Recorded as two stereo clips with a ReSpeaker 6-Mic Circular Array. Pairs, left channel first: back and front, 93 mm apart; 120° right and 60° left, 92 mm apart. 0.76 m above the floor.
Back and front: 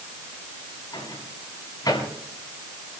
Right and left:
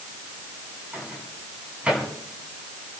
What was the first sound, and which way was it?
A microwave, 135° left.